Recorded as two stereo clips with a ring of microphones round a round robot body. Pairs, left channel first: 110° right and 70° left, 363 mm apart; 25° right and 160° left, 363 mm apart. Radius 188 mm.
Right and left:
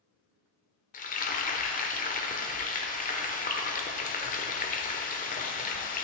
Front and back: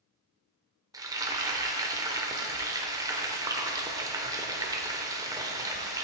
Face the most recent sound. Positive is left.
turn(degrees=-135)